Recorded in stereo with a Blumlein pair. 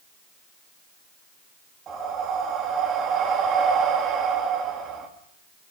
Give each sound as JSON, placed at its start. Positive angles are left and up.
{"t": 1.9, "sound": "breathing", "azimuth_deg": -25, "distance_m": 3.5}